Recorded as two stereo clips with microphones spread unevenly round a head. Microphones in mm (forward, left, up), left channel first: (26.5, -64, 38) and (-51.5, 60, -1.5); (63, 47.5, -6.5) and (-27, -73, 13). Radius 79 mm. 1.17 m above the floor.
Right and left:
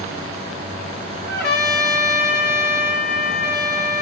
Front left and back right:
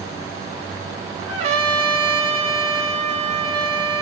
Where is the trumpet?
80° right, 2.5 m.